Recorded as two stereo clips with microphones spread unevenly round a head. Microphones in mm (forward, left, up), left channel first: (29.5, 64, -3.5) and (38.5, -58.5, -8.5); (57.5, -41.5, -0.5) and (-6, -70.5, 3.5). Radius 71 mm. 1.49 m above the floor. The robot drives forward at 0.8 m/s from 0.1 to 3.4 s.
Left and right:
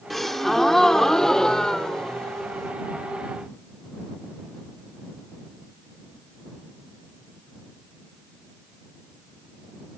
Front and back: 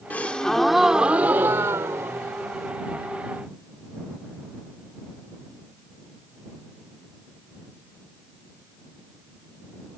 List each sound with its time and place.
0.1 s a gasp: 15° left; by 2.7 s 175° left